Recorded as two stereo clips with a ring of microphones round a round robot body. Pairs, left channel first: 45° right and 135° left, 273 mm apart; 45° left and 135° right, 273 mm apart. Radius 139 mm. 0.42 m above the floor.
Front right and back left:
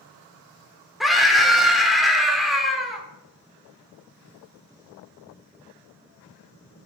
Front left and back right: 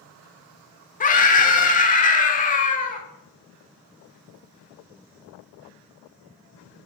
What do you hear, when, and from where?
1.0 s a scream: 45° left, 1.2 m